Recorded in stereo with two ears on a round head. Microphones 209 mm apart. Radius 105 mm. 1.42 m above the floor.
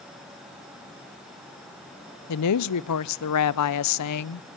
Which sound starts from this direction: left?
A woman speaking, at 2.3 s.